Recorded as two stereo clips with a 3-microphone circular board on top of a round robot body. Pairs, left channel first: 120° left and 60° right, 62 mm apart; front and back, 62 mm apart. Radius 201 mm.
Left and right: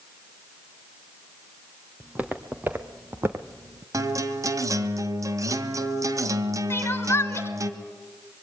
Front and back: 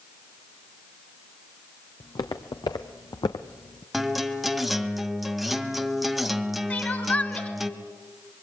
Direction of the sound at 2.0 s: 10° left.